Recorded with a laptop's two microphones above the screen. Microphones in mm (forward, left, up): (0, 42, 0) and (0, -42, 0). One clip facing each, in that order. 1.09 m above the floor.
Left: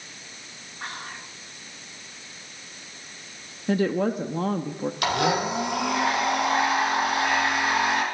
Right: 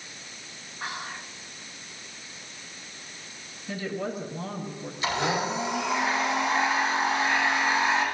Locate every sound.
0.8 s whispering: 5° right (ahead or behind), 2.0 m
3.7 s a woman speaking: 60° left (ahead or behind), 1.6 m
5.0 s a blender: 70° left (ahead or behind), 7.5 m